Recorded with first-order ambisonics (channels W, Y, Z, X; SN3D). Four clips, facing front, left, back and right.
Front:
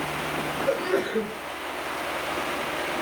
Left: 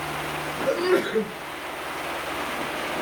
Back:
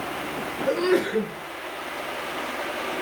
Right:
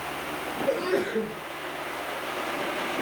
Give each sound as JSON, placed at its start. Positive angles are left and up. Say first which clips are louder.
{"t": 0.7, "sound": "a sneeze", "louder": "left 4 dB, back 5 dB", "azimuth_deg": 145, "distance_m": 5.5}